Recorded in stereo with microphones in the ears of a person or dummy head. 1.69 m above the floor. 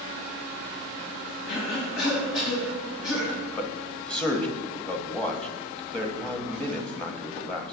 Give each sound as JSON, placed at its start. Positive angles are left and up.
{"t": 1.5, "sound": "a cough", "side_deg": 60, "distance_m": 2.5}
{"t": 3.6, "sound": "a man speaking", "side_deg": 10, "distance_m": 1.1}